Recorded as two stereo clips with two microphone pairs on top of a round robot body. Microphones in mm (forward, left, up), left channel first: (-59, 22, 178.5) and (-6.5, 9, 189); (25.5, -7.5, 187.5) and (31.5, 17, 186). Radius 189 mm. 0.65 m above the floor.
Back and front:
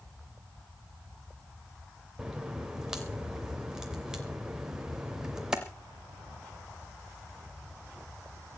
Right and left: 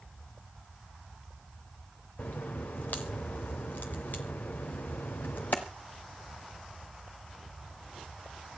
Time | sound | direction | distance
2.2 | a crack | 85° right | 0.6 m